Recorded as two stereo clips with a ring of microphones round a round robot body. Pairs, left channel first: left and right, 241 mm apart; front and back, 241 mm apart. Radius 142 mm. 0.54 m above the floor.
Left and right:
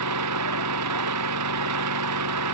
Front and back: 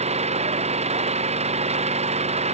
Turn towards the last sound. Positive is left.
turn(degrees=-115)